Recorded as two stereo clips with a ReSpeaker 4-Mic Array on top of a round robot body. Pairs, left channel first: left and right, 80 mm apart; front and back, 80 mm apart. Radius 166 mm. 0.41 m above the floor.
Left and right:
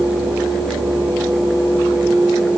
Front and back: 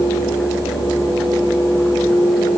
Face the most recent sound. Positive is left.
No sound to turn to.